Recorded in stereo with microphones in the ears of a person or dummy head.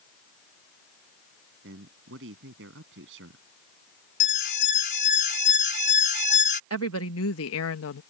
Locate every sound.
1.6 s a man speaking: 65° right (ahead or behind)
4.2 s an alarm: 60° left (ahead or behind)
6.7 s a woman speaking: 70° left (ahead or behind)